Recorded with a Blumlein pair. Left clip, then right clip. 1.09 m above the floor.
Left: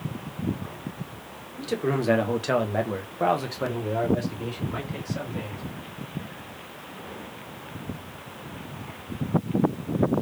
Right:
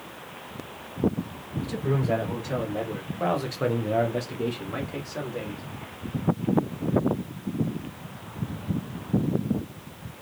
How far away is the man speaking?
About 1.6 m.